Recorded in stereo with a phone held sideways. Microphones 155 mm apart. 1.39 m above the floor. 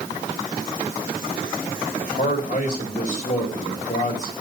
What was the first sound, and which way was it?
A man speaking, 55° left (ahead or behind).